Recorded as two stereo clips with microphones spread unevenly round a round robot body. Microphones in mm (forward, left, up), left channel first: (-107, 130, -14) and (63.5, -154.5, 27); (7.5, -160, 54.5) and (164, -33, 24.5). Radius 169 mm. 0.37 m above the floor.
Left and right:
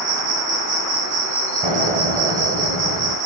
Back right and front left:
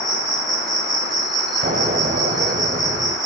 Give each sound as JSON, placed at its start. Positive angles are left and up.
{"t": 0.0, "sound": "an insect", "azimuth_deg": -50, "distance_m": 3.0}
{"t": 1.6, "sound": "an explosion", "azimuth_deg": 10, "distance_m": 0.9}